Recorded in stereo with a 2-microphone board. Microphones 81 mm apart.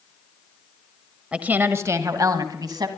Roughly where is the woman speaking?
Centre.